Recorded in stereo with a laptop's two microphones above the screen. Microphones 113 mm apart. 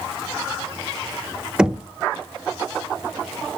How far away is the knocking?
About 1.0 m.